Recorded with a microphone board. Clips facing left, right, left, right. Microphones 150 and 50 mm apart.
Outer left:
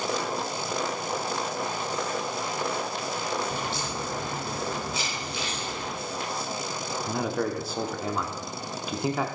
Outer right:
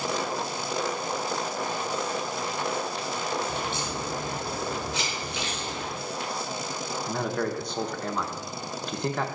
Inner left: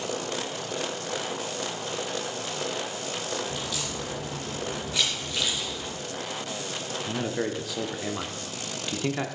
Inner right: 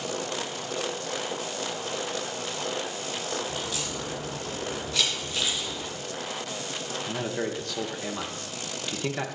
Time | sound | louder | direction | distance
3.5 | a crack | even, even | 20° right (ahead or behind) | 4 m
4.9 | a camera shutter | outer right 1 dB, even | 10° left (ahead or behind) | 4.5 m
7.1 | a man speaking | outer left 1 dB, inner left 2 dB | 5° left (ahead or behind) | 0.8 m